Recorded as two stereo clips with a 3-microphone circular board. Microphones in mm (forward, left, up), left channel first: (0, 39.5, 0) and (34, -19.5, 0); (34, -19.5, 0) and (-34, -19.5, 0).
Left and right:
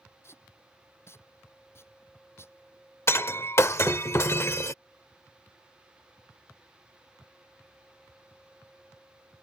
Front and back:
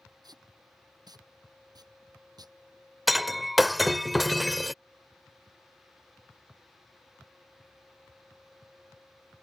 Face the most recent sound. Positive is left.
turn(degrees=90)